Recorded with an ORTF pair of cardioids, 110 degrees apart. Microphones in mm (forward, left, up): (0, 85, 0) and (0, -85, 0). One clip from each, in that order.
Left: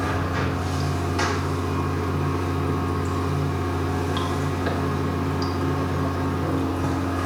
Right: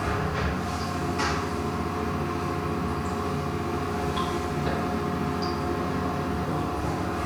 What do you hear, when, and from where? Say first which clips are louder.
0.0 s running water: left 2 dB; 40° left, 1.2 m